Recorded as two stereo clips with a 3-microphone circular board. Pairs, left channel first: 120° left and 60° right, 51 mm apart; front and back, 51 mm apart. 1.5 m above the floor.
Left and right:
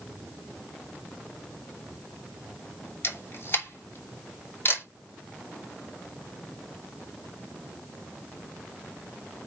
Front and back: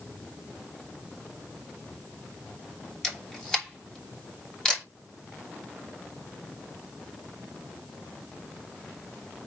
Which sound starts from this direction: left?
A camera shutter, at 3.0 s.